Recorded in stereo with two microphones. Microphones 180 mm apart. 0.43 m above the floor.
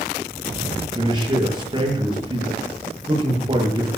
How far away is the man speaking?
About 7 m.